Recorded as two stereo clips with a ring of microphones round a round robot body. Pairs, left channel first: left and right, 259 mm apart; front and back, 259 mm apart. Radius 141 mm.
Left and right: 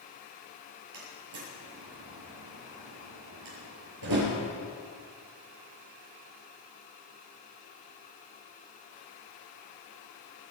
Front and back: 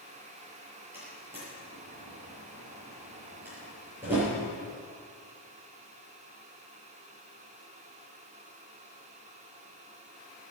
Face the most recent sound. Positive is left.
turn(degrees=-95)